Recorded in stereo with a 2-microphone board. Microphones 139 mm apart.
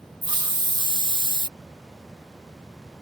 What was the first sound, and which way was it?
A hiss, 35° right (ahead or behind).